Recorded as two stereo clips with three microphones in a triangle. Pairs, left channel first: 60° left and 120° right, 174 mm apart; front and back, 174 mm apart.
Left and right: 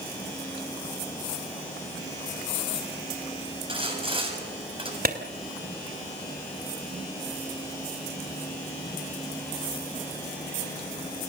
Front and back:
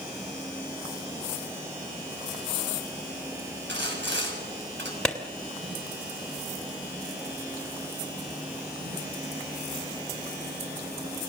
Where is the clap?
85° right, 2.5 m.